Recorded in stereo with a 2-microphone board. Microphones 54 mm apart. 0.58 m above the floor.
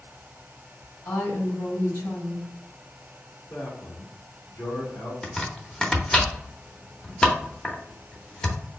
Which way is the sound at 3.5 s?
40° left (ahead or behind).